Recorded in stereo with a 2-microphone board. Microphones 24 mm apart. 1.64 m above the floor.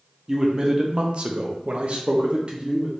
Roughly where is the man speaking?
Right.